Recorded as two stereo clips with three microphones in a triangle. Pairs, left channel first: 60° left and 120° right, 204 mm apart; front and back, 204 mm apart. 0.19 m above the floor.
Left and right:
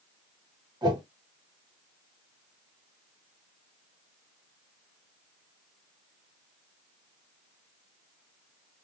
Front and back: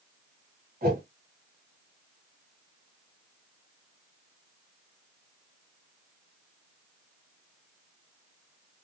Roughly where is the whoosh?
Behind.